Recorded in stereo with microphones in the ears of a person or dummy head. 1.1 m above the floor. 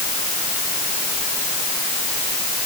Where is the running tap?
No running tap in this recording.